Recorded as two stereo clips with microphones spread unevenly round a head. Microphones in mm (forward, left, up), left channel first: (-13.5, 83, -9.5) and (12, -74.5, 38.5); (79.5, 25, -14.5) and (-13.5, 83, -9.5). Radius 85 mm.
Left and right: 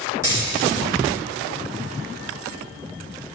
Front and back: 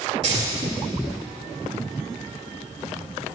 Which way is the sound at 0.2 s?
150° right.